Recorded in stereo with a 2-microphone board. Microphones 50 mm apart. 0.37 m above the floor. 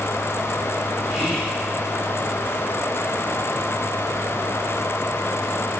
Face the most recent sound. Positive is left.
turn(degrees=0)  # may be behind; listen again after turning